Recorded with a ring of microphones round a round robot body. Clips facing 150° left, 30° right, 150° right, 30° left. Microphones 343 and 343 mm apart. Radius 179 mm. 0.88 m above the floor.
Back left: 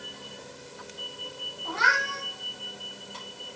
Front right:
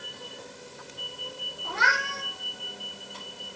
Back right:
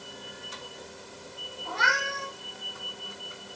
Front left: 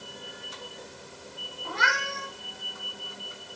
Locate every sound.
1.6 s a cat meowing: 10° left, 7.5 m